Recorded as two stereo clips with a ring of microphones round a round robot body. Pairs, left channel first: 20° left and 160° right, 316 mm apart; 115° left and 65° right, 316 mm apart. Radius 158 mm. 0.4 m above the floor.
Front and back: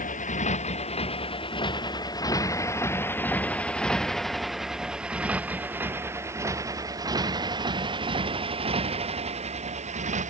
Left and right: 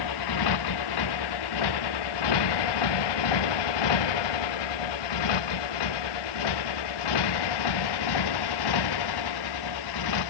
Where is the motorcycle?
90° left; by 10.3 s 135° left.